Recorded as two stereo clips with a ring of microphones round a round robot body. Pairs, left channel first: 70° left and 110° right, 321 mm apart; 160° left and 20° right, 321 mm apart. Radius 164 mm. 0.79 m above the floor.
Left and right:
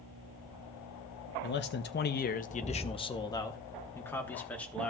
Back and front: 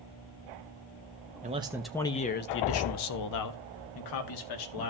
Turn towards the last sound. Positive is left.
turn(degrees=155)